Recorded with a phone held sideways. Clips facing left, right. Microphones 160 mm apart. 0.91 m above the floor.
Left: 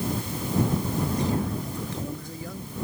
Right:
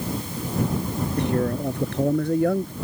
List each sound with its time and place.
1.2 s a man speaking: 65° right (ahead or behind)